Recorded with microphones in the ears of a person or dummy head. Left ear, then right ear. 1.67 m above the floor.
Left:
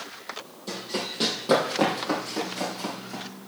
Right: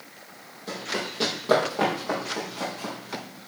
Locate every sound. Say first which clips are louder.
0.7 s running footsteps: right 1 dB; centre (ahead or behind), 4 m; by 3.2 s 10° left (ahead or behind), 5 m